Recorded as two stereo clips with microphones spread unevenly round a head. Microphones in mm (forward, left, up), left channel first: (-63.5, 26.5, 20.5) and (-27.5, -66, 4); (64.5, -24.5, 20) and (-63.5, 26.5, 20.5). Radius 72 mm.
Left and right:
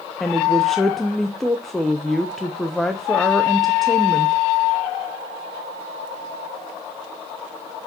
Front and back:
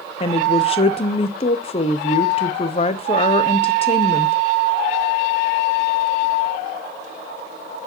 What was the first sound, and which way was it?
A woman speaking, 25° left.